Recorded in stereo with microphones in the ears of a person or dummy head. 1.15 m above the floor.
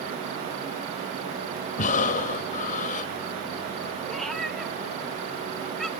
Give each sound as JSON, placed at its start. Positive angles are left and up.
{"t": 1.8, "sound": "breathing", "side_deg": 45, "distance_m": 0.8}
{"t": 4.1, "sound": "a cat meowing", "side_deg": 0, "distance_m": 0.7}